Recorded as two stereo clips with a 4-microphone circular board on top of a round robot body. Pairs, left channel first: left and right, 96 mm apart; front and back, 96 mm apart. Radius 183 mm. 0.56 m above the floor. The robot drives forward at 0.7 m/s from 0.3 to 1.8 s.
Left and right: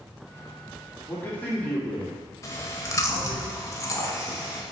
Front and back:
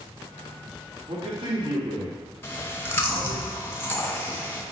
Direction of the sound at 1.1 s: 160° left.